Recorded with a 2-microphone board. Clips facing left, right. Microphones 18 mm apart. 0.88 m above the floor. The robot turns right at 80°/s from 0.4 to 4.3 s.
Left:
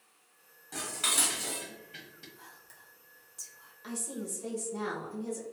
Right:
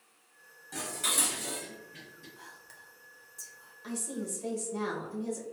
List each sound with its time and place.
0.7 s dishes clattering: centre (ahead or behind), 0.8 m; by 2.3 s 55° left (ahead or behind), 0.8 m
2.4 s whispering: 45° right (ahead or behind), 0.7 m; by 3.7 s 30° left (ahead or behind), 0.7 m
3.8 s a woman speaking: 155° left, 1.0 m; by 5.4 s 165° right, 1.0 m